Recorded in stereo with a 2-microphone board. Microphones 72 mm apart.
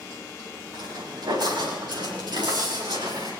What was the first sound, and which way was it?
Footsteps, 70° right (ahead or behind).